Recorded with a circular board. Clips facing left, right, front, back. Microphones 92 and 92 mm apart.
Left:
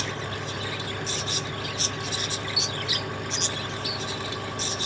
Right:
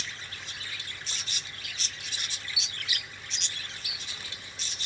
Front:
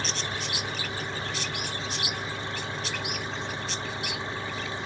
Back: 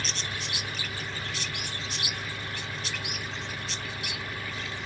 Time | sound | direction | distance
0.0 | an engine running | 65° left | ?